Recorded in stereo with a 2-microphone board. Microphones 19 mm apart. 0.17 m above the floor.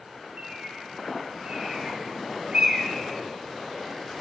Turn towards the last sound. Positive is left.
turn(degrees=-35)  # may be behind; listen again after turning